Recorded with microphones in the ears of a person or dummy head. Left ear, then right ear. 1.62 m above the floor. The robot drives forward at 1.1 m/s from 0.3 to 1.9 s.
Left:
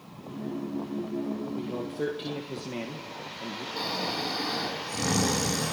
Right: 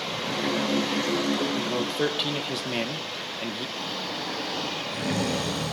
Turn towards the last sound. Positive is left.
turn(degrees=70)  # may be behind; listen again after turning